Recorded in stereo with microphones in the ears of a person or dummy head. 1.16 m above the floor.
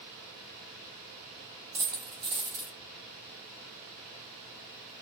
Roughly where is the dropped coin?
Centre.